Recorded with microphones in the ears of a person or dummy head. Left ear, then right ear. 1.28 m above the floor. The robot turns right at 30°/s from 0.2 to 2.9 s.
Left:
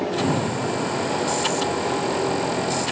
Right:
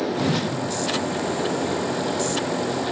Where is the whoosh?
65° right (ahead or behind), 1.0 m; by 0.6 s 55° right (ahead or behind), 1.0 m.